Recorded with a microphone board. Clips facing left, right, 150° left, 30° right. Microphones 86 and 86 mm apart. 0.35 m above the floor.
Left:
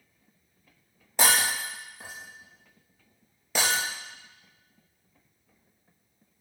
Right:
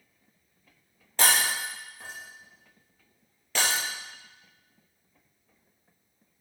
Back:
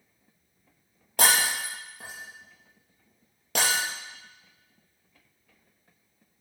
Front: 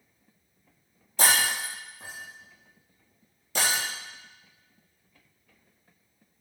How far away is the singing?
I don't hear singing.